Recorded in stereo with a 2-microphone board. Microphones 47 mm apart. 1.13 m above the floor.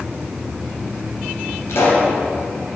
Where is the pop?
75° left (ahead or behind), 3 m.